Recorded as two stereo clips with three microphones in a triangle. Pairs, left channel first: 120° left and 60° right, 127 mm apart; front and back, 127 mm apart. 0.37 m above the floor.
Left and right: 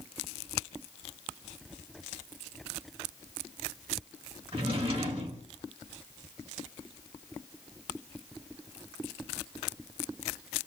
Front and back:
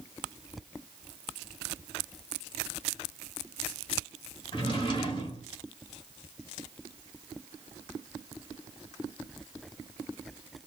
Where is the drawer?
35° right, 0.9 m.